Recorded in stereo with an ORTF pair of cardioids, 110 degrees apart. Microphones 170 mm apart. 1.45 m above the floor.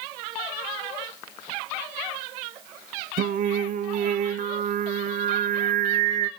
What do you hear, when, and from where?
3.2 s singing: 50° right, 0.5 m